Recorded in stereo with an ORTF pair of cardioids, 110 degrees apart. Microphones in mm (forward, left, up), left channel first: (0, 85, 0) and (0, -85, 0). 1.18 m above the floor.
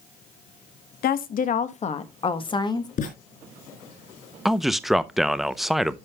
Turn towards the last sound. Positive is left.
turn(degrees=0)